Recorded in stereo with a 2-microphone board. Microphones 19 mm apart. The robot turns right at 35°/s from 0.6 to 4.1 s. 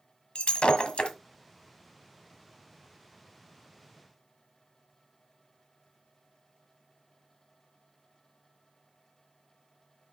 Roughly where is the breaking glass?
Left.